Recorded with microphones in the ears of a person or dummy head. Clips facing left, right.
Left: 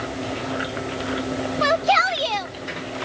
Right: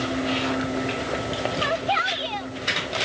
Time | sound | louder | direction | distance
1.6 | a shout | left 5 dB | 55° left (ahead or behind) | ?